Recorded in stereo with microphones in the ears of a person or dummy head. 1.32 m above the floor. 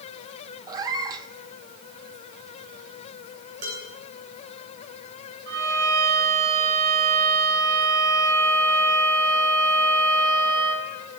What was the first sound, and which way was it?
A cat meowing, 20° right (ahead or behind).